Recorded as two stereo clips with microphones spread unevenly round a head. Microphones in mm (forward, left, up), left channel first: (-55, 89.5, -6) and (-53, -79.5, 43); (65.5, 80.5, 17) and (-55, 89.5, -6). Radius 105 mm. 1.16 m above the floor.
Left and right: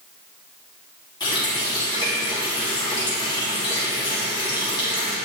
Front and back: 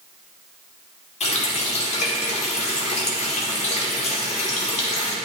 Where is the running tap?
15° left, 1.7 m.